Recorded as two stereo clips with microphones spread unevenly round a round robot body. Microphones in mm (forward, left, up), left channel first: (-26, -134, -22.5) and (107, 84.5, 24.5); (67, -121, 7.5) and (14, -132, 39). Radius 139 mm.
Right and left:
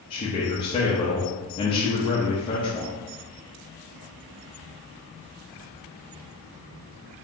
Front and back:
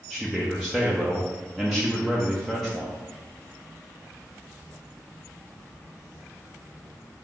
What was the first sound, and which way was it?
A man speaking, 60° right.